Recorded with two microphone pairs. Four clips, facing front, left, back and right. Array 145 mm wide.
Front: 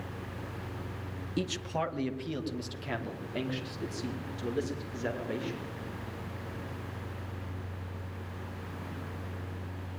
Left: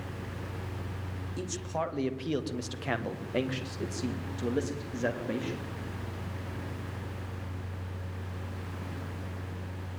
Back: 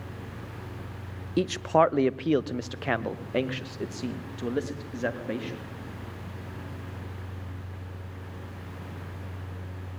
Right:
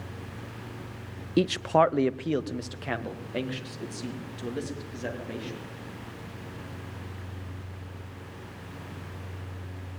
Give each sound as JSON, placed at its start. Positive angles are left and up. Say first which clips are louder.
{"t": 1.4, "sound": "a man speaking", "louder": "right 13 dB, back 11 dB", "azimuth_deg": -110, "distance_m": 0.8}